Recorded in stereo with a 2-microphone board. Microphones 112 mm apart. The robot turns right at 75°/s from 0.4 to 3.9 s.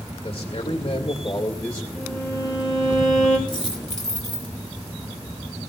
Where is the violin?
5° right, 3 m; by 3.4 s 105° left, 3 m.